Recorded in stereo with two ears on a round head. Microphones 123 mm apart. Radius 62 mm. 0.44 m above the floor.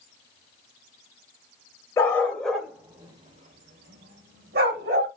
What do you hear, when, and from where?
2.0 s a dog barking: 20° left (ahead or behind), 0.7 m; by 5.1 s 80° right, 1.2 m